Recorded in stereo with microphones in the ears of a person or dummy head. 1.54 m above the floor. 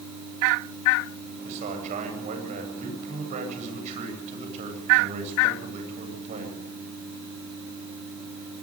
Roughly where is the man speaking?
Right.